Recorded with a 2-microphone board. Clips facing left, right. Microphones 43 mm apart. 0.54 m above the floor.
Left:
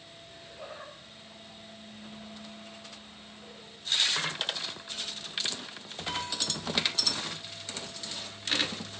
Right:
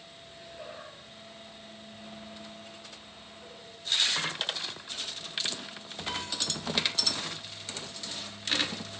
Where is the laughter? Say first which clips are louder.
Even; 5° right (ahead or behind), 9.5 m; by 3.7 s centre (ahead or behind), 7 m.